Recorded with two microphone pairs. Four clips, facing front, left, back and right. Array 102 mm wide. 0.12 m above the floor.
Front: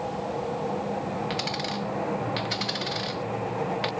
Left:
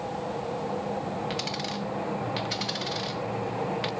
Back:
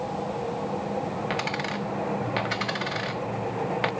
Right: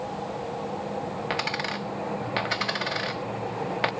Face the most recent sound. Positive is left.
turn(degrees=-115)